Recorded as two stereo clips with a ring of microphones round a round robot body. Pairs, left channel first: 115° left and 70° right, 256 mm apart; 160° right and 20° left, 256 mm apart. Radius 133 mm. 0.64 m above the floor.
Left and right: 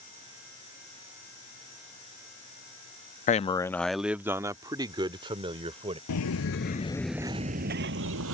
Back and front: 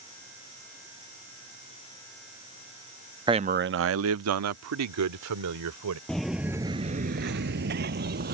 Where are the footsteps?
115° left; by 8.4 s 30° right.